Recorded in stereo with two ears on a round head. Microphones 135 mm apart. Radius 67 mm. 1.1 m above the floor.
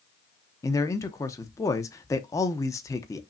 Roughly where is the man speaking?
Left.